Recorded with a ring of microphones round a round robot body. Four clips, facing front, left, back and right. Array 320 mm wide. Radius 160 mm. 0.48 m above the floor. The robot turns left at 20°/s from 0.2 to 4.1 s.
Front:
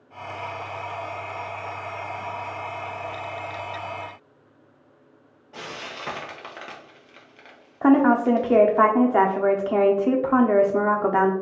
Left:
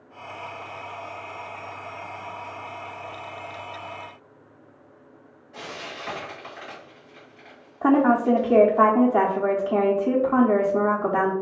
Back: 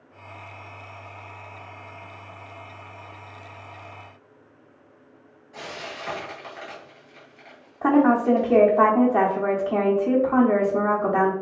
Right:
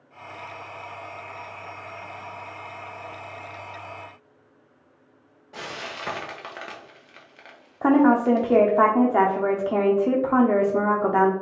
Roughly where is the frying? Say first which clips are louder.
Right 2 dB, even; ahead right.